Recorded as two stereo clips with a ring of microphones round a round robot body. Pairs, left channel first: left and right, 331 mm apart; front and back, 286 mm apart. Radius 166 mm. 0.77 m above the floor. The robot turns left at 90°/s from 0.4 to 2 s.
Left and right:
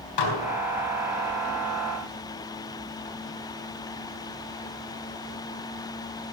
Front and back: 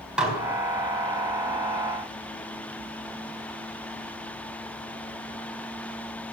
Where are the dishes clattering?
95° left, 4 m.